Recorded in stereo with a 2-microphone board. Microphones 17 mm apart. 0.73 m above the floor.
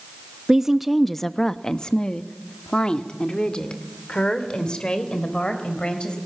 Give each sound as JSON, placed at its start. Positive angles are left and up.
{"t": 0.5, "sound": "a woman speaking", "side_deg": -35, "distance_m": 0.6}